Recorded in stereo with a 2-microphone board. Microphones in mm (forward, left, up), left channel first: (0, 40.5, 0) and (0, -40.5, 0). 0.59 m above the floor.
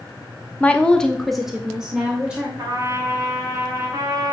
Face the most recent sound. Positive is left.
turn(degrees=-50)  # may be behind; listen again after turning